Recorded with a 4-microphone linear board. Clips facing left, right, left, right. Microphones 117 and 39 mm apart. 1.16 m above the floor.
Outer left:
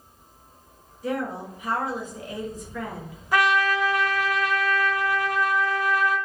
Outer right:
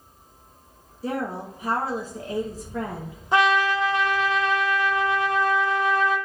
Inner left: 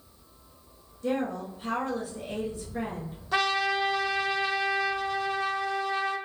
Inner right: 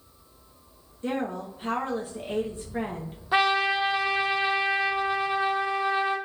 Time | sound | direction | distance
1.0 | a woman speaking | 35° right (ahead or behind) | 0.6 m
3.3 | a trumpet | 25° right (ahead or behind) | 0.6 m